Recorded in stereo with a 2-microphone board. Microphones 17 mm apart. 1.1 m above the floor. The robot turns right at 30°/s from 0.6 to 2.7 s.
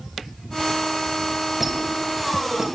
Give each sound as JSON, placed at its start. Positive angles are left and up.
{"t": 1.6, "sound": "a squeak", "side_deg": -20, "distance_m": 1.3}